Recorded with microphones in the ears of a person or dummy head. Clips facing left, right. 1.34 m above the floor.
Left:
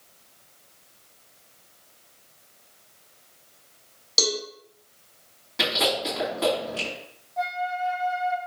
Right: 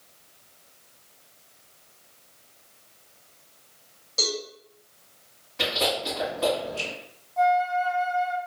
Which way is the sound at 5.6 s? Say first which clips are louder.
Left 1 dB; 55° left (ahead or behind).